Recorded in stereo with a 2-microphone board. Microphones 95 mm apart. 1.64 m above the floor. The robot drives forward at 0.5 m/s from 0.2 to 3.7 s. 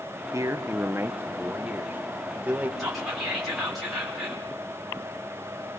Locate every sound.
0.3 s a man speaking: 35° right (ahead or behind), 1.1 m; by 2.7 s 15° right (ahead or behind), 2 m
2.8 s whispering: centre (ahead or behind), 5 m